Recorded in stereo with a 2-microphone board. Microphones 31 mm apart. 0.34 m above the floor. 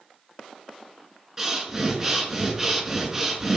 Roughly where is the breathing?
Centre.